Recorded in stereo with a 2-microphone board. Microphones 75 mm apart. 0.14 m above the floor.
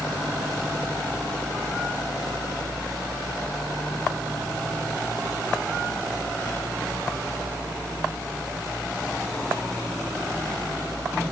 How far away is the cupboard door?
No cupboard door in this recording.